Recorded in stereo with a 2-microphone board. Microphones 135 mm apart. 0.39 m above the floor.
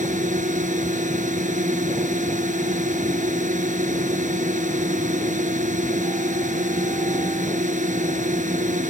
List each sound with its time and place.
0.0 s a drone: 80° right